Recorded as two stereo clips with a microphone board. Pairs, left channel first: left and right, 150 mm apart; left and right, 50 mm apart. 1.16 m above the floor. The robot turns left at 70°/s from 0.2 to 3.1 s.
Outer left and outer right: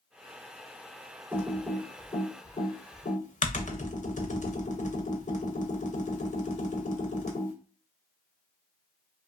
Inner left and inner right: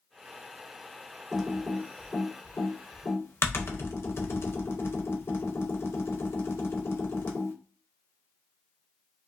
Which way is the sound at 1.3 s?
15° right (ahead or behind).